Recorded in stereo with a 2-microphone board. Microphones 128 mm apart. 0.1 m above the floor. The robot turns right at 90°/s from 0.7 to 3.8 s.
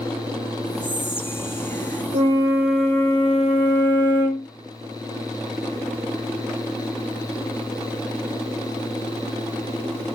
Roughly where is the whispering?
Centre.